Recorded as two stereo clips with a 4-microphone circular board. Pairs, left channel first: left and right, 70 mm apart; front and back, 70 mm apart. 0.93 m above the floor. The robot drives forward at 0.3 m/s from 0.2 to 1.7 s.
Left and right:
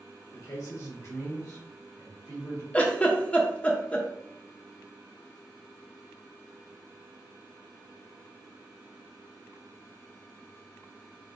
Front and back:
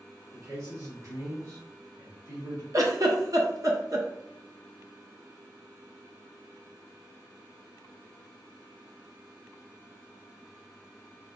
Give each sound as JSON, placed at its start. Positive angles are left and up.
{"t": 0.3, "sound": "a man speaking", "azimuth_deg": 130, "distance_m": 1.5}
{"t": 2.7, "sound": "a giggle", "azimuth_deg": 155, "distance_m": 0.7}